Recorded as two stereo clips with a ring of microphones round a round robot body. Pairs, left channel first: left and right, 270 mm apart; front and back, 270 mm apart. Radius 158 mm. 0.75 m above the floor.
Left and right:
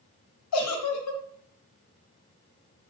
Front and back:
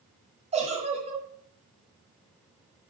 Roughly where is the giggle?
Left.